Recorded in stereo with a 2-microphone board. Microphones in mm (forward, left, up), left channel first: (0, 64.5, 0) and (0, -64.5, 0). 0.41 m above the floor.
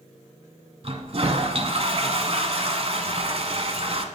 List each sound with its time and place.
0.8 s a toilet flushing: 50° right (ahead or behind), 1.0 m